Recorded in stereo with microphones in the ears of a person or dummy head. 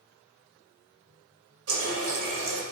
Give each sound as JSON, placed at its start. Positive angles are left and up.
{"t": 1.7, "sound": "a running tap", "side_deg": -60, "distance_m": 1.1}